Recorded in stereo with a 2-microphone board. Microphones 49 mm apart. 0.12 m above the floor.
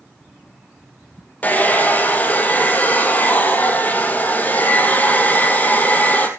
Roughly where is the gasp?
No gasp in this recording.